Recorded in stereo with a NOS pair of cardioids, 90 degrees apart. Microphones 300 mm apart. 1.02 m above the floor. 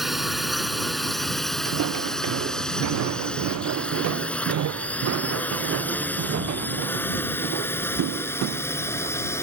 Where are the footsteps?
65° right.